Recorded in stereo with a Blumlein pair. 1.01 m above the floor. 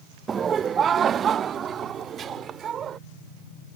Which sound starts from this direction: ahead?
Laughter, at 0.3 s.